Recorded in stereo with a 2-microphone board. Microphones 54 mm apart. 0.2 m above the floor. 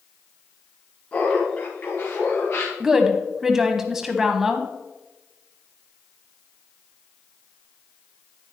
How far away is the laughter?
About 2.5 m.